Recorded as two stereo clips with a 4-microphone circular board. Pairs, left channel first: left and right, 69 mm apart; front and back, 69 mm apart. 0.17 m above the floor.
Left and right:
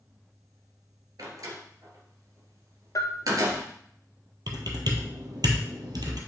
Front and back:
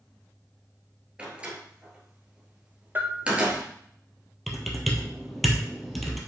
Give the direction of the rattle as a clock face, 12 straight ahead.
I don't hear a rattle.